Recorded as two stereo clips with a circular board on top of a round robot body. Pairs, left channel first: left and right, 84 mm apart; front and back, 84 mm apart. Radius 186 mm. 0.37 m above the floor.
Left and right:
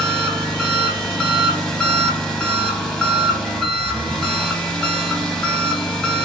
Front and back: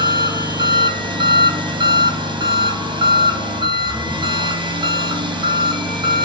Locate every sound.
0.0 s an engine running: 170° left, 1.4 m